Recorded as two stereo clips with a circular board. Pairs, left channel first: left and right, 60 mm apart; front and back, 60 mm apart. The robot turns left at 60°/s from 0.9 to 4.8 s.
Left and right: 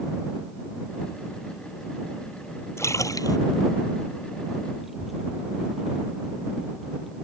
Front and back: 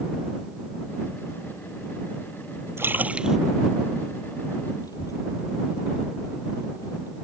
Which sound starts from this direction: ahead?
A child speaking, at 4.8 s.